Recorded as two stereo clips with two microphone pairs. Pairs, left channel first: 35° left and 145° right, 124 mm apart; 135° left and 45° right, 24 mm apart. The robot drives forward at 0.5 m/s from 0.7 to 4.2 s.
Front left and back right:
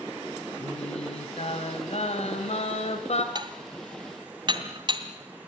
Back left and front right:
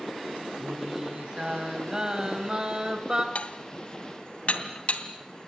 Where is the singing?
10° left, 4.5 m; by 3.2 s 15° left, 3 m.